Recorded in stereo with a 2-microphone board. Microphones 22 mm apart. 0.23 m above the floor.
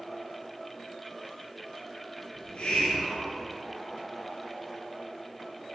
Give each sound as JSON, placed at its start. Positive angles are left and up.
{"t": 2.4, "sound": "a hiss", "side_deg": 55, "distance_m": 3.5}